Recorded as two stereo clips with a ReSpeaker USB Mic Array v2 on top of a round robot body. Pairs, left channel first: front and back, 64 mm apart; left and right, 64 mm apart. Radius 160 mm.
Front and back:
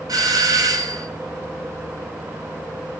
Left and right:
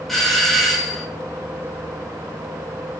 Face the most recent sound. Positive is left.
turn(degrees=175)